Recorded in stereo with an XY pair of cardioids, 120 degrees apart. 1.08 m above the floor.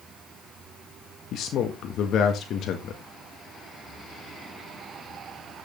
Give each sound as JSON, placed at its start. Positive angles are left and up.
{"t": 1.3, "sound": "a man speaking", "azimuth_deg": 65, "distance_m": 1.6}